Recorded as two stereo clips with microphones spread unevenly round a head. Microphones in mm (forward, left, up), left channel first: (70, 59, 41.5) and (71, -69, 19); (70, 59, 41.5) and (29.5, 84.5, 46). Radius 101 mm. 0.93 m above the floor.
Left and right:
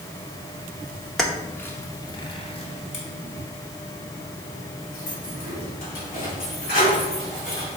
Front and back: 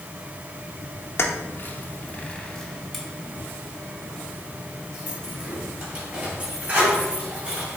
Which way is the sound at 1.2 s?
Straight ahead.